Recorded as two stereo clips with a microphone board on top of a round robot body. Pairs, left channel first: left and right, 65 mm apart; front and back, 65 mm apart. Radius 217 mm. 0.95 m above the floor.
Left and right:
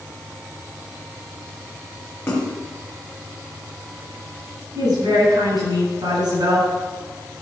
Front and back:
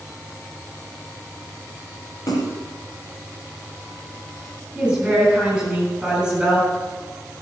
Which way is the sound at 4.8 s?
105° right.